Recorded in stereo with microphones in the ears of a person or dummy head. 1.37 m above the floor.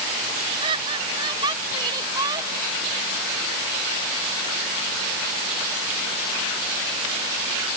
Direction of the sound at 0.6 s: 25° right (ahead or behind).